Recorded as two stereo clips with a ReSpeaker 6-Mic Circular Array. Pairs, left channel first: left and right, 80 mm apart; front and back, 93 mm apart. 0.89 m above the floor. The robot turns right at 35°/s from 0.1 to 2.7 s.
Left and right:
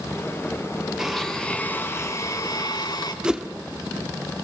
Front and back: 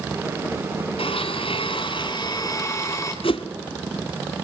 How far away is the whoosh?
About 1.6 m.